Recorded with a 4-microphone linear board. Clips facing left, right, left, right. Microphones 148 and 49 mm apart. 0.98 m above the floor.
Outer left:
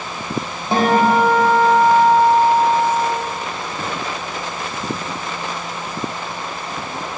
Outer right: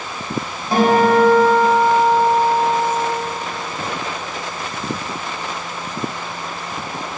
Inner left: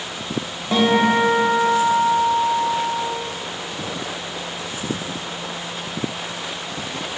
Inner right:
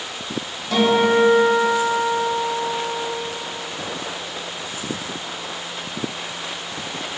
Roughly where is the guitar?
Left.